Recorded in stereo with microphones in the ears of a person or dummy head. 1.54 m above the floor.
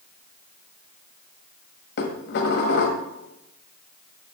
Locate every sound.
2.0 s dishes clattering: 55° left (ahead or behind), 1.4 m